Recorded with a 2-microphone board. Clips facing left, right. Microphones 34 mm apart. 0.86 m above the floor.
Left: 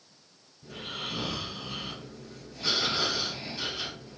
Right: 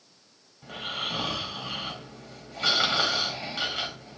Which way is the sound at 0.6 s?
75° right (ahead or behind).